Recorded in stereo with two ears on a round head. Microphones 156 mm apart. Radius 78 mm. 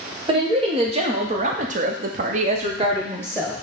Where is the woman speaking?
30° right (ahead or behind), 1.4 m; by 3.5 s 15° right (ahead or behind), 1.0 m.